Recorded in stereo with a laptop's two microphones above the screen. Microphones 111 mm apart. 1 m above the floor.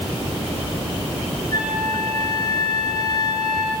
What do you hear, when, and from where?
1.5 s a flute: 35° left (ahead or behind), 5.5 m